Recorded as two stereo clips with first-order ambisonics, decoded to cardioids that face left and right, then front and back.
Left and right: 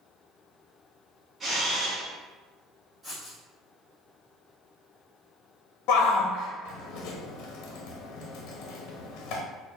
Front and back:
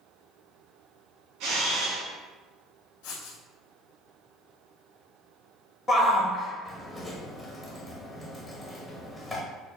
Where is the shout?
75° left, 0.8 m.